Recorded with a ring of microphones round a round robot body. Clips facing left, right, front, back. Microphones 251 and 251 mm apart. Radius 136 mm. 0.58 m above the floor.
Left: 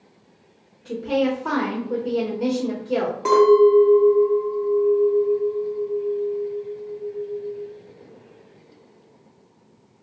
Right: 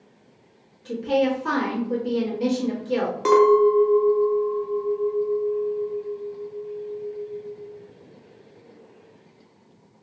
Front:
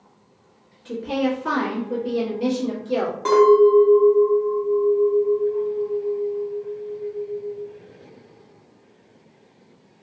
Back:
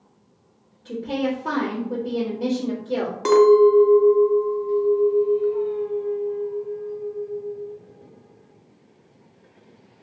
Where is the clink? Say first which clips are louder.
Left 2 dB, even; 150° right, 0.5 m.